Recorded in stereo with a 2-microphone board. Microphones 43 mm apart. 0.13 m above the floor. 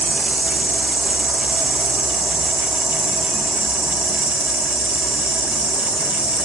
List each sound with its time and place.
0.0 s an insect: 45° right (ahead or behind), 2.5 m